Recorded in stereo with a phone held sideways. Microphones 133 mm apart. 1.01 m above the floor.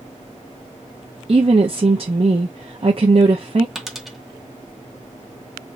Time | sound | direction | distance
1.3 | a woman speaking | 45° right (ahead or behind) | 0.6 m
3.8 | a dropped coin | centre (ahead or behind) | 0.7 m